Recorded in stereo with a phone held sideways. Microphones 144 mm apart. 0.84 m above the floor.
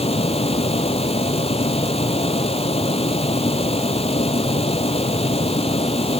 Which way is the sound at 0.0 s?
45° left (ahead or behind).